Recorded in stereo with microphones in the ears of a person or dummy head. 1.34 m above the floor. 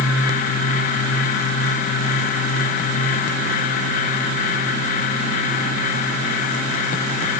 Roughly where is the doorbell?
No doorbell in this recording.